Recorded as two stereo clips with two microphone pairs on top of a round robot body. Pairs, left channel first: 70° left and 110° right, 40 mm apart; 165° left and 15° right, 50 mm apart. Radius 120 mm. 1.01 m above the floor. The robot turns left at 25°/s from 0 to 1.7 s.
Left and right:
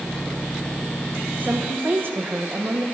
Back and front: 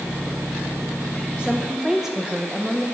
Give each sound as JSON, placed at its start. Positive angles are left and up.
{"t": 1.4, "sound": "a woman speaking", "azimuth_deg": -90, "distance_m": 1.2}